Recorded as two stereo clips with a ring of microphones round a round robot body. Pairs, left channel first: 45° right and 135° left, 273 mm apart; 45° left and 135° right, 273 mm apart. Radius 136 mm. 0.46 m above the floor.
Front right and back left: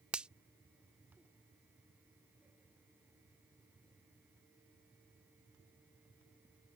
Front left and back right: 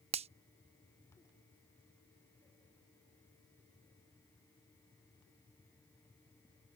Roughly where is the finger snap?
Behind right.